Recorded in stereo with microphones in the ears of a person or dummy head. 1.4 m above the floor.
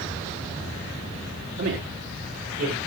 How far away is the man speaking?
About 4 m.